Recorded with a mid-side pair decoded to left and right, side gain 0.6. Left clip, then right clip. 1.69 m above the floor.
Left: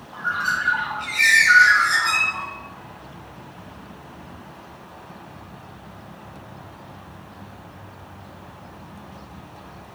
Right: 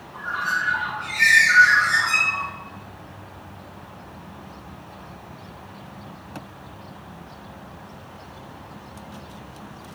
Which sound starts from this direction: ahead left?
A bird, at 0.1 s.